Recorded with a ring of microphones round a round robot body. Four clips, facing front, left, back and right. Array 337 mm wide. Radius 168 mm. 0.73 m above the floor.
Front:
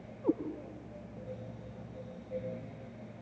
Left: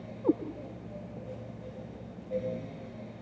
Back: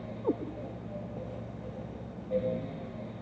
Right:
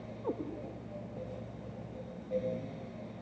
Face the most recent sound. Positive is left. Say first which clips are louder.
# left 10 dB, even
turn(degrees=55)